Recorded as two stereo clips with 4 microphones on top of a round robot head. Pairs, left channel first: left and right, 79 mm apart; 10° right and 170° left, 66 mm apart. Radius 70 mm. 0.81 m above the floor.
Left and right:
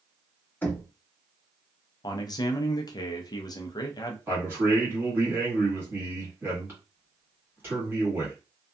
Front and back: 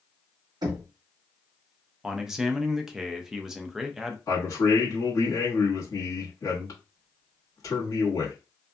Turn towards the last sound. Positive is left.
turn(degrees=-30)